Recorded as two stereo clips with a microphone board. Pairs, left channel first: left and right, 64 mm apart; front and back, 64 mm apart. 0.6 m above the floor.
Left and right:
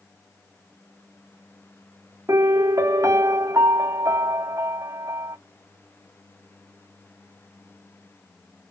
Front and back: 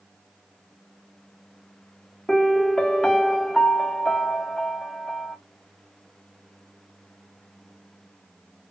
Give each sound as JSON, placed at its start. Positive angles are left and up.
{"t": 2.3, "sound": "a piano", "azimuth_deg": -80, "distance_m": 0.7}